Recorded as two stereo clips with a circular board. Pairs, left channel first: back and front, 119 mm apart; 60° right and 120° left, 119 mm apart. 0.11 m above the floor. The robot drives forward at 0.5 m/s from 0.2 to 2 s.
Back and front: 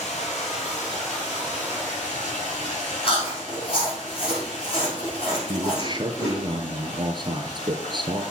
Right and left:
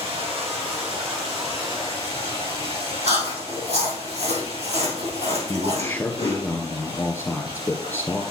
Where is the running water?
160° left, 4 m; by 8.3 s 165° left, 5 m.